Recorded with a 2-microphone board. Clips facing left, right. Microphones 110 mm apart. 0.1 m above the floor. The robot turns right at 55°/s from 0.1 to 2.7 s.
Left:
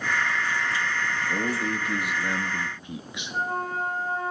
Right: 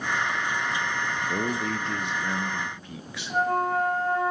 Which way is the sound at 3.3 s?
65° right (ahead or behind).